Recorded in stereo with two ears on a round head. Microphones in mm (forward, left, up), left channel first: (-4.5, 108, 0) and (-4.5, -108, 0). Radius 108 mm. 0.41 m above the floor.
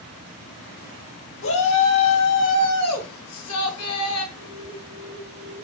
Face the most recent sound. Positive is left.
turn(degrees=-5)  # may be behind; listen again after turning